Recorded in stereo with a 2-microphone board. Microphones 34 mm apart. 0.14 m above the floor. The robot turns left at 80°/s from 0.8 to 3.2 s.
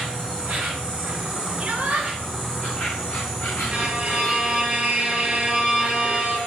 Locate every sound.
0.0 s an insect: 50° right, 1.3 m; by 6.5 s 120° left, 1.3 m
1.6 s a shout: 70° right, 1.8 m; by 2.1 s 110° right, 1.8 m
3.7 s a violin: 30° right (ahead or behind), 2.5 m